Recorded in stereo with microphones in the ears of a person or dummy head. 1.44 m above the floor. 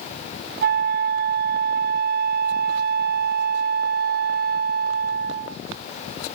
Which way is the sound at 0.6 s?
55° right (ahead or behind).